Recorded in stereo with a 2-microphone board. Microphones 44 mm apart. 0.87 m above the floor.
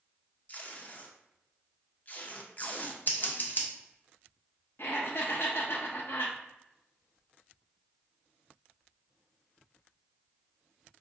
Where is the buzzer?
No buzzer in this recording.